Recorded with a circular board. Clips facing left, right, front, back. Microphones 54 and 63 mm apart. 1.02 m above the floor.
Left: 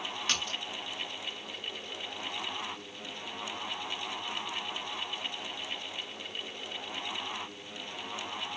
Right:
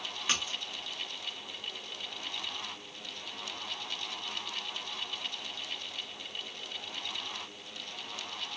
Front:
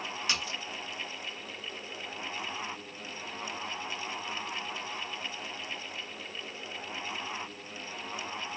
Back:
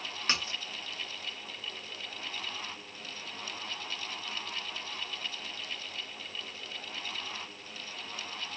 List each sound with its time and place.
0.3 s a splash: 160° right, 0.9 m